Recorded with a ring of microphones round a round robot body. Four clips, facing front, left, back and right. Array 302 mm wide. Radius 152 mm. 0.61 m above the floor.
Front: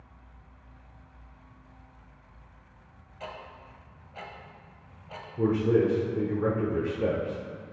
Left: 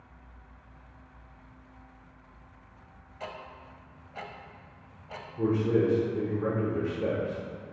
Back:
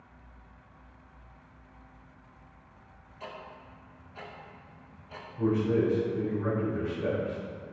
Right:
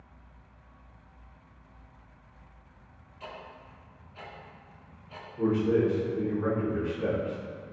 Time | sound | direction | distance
3.2 | ticking | 65° left | 1.3 m
5.4 | a man speaking | 10° left | 1.8 m